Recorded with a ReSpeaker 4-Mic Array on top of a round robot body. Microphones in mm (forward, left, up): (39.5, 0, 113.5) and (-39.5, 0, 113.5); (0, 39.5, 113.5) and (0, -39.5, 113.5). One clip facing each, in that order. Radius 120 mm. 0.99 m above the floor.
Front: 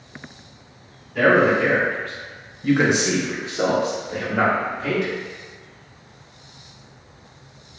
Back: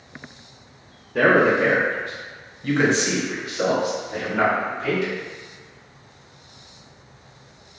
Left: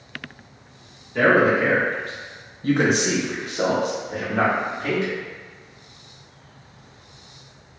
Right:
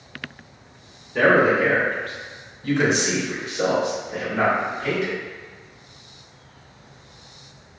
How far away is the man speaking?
About 1.0 m.